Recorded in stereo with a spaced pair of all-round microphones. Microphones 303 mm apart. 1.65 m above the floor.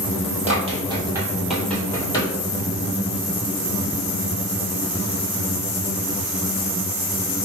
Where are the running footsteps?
20° right (ahead or behind), 1.8 m; by 2.3 s 15° left (ahead or behind), 1.7 m.